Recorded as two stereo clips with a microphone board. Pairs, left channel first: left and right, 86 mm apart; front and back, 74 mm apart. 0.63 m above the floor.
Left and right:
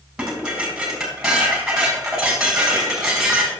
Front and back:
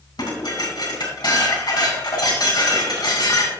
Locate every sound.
0.2 s dishes clattering: 10° right, 3 m